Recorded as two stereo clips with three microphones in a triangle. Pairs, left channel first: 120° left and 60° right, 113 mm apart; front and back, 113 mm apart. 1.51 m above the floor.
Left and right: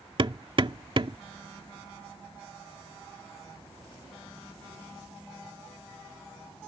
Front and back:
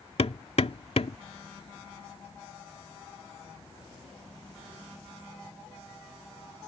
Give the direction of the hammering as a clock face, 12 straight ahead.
1 o'clock.